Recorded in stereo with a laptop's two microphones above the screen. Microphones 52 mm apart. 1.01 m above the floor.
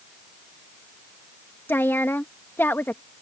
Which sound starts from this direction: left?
A woman speaking, at 1.7 s.